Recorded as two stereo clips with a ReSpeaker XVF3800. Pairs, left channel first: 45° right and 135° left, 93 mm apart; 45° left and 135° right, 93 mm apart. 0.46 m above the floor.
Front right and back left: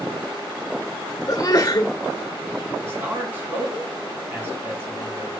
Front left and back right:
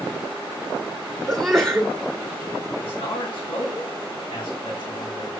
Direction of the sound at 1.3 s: 40° right.